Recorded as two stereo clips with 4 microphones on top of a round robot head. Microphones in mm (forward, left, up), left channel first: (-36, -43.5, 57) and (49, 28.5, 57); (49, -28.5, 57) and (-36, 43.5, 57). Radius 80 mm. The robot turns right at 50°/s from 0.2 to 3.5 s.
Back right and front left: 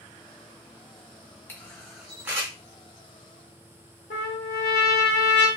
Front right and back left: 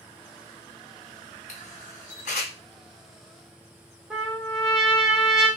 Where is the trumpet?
135° right, 0.9 m.